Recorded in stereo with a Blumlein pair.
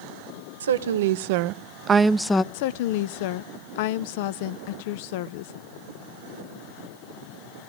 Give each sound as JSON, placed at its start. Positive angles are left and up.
{"t": 0.6, "sound": "a woman speaking", "azimuth_deg": -65, "distance_m": 1.0}
{"t": 2.5, "sound": "a woman speaking", "azimuth_deg": 50, "distance_m": 0.5}